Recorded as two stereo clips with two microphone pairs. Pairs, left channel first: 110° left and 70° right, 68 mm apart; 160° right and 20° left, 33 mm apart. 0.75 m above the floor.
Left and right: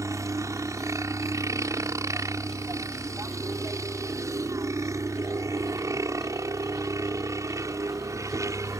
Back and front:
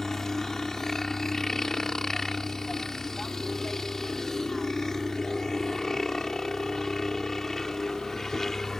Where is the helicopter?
85° right.